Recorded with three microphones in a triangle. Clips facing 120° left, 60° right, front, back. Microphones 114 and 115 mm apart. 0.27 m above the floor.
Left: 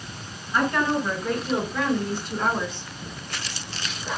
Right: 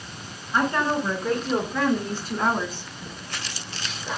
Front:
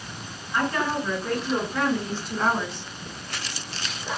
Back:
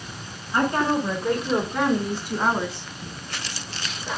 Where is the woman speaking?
120° right, 3.5 m; by 2.9 s 90° right, 3 m.